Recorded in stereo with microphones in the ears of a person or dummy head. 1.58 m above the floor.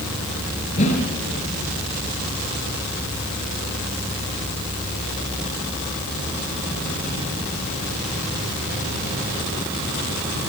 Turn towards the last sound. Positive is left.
turn(degrees=35)  # may be behind; listen again after turning